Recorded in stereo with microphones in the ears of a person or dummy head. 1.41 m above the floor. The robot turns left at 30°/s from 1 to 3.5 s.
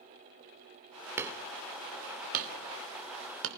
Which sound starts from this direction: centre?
Hammering, at 1.2 s.